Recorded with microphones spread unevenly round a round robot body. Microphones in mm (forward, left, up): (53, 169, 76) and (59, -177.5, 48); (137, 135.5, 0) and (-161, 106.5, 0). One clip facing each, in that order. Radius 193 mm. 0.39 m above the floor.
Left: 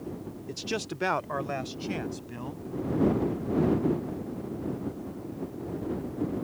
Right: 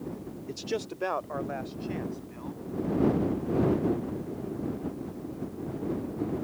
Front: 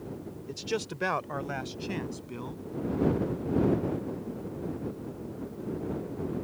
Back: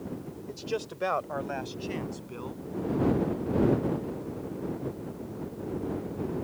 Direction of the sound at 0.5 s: 5° right.